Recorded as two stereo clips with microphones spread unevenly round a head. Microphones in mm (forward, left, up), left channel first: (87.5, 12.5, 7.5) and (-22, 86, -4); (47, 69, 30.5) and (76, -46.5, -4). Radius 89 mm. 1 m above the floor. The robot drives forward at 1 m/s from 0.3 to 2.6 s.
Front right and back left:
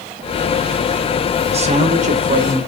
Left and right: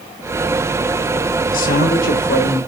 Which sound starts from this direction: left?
A man speaking, at 1.5 s.